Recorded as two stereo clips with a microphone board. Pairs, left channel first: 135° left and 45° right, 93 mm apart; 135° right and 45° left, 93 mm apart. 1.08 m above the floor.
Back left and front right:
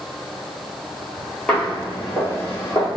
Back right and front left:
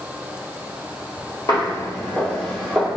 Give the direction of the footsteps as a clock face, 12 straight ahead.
5 o'clock.